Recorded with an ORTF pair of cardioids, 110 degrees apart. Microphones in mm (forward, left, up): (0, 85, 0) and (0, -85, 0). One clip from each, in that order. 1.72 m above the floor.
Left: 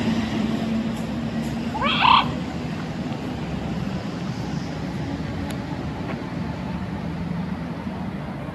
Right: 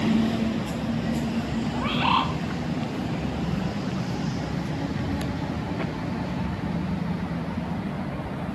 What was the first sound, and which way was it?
A bird, 40° left.